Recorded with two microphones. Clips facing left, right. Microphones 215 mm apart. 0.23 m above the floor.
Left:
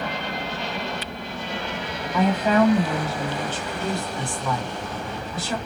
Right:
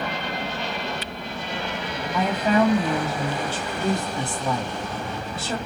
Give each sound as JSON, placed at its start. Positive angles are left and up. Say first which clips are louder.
{"t": 2.1, "sound": "a woman speaking", "louder": "left 2 dB", "side_deg": 10, "distance_m": 1.6}